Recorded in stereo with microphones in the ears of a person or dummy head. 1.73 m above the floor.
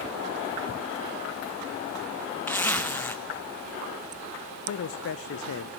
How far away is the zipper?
About 0.9 m.